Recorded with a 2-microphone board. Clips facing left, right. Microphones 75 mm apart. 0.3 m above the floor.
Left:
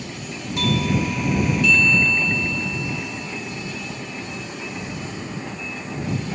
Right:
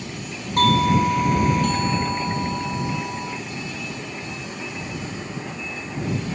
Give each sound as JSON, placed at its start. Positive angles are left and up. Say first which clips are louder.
{"t": 0.6, "sound": "a doorbell", "louder": "right 5 dB", "side_deg": -45}